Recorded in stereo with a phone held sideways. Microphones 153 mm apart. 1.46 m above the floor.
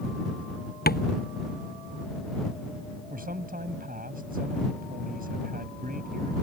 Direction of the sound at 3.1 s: 70° right (ahead or behind).